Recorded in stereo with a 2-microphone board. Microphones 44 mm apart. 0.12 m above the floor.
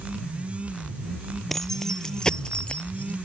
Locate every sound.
1.5 s keys jangling: 10° left (ahead or behind); by 3.1 s 35° left (ahead or behind)